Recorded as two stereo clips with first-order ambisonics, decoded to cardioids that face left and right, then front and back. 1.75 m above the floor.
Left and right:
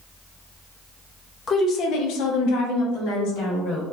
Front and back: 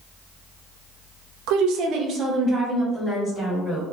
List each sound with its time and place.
1.5 s a woman speaking: 160° left, 0.6 m; by 3.8 s 80° left, 1.4 m